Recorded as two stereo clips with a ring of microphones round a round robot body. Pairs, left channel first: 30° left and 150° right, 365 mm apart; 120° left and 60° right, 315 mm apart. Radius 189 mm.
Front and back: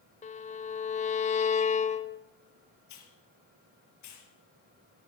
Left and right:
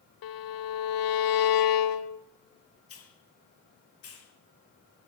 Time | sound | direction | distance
0.2 | a violin | 100° left | 1.2 m
2.9 | a hiss | 75° left | 5.5 m